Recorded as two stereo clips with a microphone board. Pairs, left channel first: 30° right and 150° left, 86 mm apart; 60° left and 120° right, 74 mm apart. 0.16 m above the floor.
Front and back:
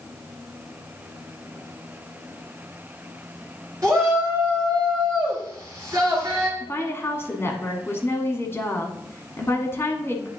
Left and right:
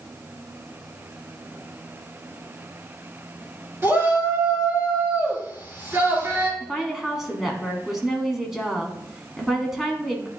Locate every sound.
3.8 s a shout: 165° right, 3 m
6.6 s a woman speaking: 35° right, 1.2 m